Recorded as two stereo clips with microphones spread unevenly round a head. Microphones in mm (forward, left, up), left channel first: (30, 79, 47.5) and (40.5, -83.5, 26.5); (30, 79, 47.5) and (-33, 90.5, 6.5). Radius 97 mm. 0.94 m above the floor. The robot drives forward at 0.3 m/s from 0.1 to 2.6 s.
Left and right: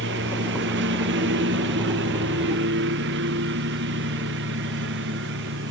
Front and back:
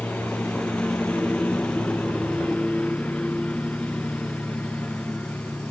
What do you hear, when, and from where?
0.0 s a lawn mower: 95° right